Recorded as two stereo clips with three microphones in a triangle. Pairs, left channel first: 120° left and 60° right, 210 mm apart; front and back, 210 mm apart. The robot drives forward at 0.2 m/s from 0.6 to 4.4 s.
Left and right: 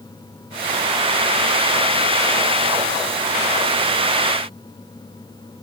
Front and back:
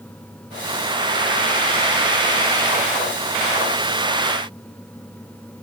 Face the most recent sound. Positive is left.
No sound to turn to.